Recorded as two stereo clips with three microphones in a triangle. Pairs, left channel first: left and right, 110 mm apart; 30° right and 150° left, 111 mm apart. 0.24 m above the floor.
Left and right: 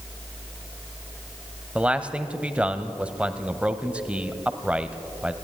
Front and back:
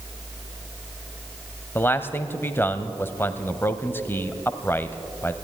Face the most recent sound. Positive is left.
turn(degrees=-35)